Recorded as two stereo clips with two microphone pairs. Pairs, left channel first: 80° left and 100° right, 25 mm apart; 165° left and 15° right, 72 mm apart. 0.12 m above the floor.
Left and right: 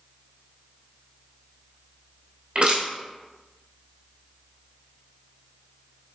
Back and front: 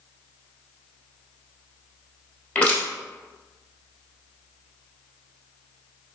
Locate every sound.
2.5 s crushing: 130° right, 1.2 m